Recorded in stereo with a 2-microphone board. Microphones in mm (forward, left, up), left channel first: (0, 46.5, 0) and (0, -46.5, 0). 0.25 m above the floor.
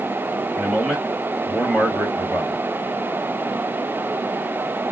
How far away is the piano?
No piano in this recording.